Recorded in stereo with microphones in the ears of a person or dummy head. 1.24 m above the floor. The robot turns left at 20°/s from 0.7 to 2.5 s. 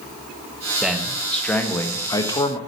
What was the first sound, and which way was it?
A man speaking, 175° right.